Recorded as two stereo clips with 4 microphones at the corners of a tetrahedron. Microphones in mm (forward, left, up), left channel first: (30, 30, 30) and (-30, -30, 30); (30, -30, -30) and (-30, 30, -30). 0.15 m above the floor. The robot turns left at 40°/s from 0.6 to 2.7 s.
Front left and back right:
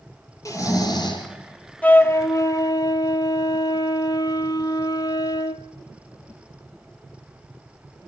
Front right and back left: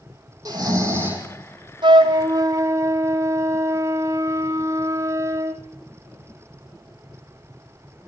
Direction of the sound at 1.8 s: 115° left.